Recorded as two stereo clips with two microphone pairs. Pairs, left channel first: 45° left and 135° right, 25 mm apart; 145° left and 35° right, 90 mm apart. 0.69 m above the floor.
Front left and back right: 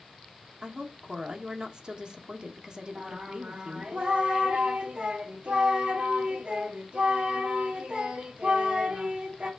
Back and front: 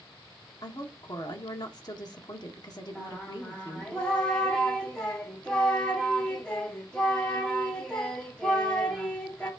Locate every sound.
0.6 s a woman speaking: straight behind, 1.3 m
3.0 s singing: 135° right, 1.8 m